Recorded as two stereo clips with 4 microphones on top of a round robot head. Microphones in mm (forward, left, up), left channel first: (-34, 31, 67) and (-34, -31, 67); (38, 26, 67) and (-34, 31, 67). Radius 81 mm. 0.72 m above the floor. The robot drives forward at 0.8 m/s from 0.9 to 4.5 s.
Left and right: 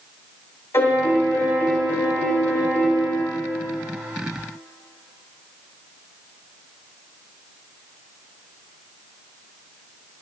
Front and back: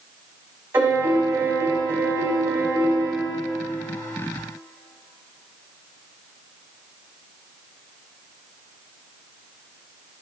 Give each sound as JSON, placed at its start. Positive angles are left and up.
{"t": 0.7, "sound": "a piano", "azimuth_deg": 120, "distance_m": 3.0}